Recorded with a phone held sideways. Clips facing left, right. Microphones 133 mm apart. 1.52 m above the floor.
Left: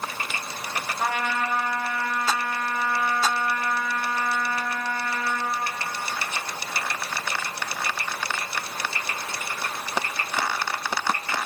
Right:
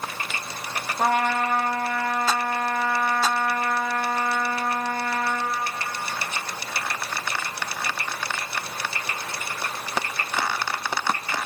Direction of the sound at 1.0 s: 45° right (ahead or behind).